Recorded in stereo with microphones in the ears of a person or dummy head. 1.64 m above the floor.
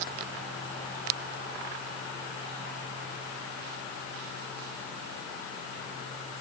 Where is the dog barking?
No dog barking in this recording.